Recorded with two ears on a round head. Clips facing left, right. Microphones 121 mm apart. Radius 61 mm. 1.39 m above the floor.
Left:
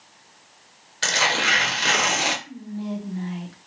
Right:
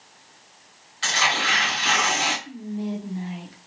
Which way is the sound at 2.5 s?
20° right (ahead or behind).